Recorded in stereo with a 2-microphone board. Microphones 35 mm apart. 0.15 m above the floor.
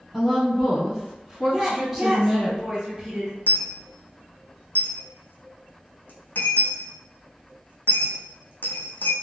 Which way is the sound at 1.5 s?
20° right (ahead or behind).